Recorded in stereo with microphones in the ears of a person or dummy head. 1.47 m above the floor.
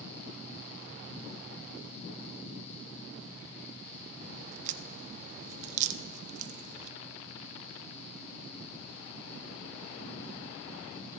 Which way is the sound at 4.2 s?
40° right (ahead or behind).